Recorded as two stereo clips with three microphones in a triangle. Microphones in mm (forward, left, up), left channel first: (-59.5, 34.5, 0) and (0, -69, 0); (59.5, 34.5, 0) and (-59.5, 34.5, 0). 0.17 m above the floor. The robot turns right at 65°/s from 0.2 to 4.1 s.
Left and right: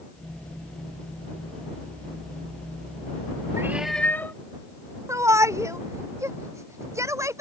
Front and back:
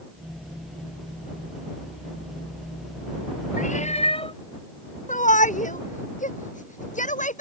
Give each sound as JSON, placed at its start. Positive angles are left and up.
{"t": 3.6, "sound": "a cat meowing", "azimuth_deg": 10}
{"t": 5.1, "sound": "a shout", "azimuth_deg": 5}